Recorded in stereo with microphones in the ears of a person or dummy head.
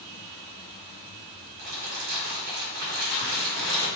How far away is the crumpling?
About 1.0 m.